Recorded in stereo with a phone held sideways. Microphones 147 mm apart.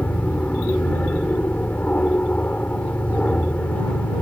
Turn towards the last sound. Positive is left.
turn(degrees=10)  # may be behind; listen again after turning